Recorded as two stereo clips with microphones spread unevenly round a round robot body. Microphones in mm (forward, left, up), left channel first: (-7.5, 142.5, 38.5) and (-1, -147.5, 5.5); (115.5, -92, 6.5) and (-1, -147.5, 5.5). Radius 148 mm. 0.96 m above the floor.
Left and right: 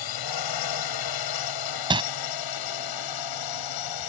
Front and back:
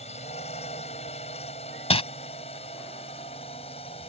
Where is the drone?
90° left; by 4.1 s 95° left.